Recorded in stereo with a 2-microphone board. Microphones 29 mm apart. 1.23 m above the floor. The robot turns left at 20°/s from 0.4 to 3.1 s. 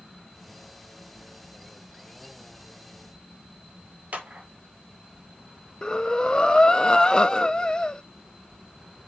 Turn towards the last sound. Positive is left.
turn(degrees=30)  # may be behind; listen again after turning